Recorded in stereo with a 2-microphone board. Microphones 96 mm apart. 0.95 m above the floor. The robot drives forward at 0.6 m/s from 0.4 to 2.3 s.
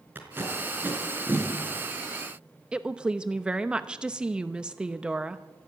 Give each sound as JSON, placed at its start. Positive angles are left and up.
{"t": 0.1, "sound": "tape being pulled", "side_deg": -25, "distance_m": 4.0}
{"t": 2.7, "sound": "a woman speaking", "side_deg": -10, "distance_m": 0.9}